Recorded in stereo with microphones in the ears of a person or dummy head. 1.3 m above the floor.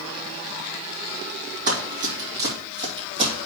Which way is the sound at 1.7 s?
45° right (ahead or behind).